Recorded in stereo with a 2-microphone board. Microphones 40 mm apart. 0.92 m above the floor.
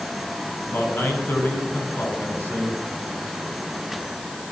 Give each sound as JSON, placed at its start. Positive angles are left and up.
{"t": 0.7, "sound": "a man speaking", "side_deg": 55, "distance_m": 9.0}